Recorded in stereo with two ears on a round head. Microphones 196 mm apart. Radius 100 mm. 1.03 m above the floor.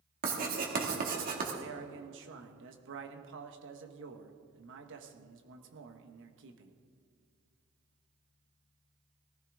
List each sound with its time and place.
0.2 s writing: 45° right (ahead or behind), 2 m
1.6 s a man speaking: 55° right (ahead or behind), 1.4 m